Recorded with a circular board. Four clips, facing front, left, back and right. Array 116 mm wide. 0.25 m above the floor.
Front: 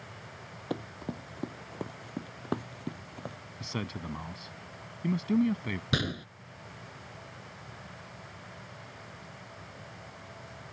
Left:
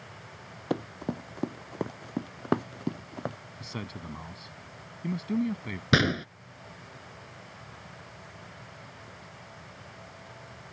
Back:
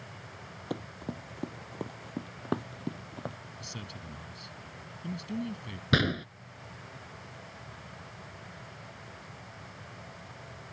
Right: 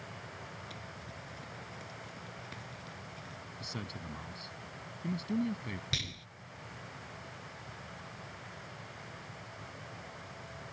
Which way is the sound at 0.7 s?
85° left.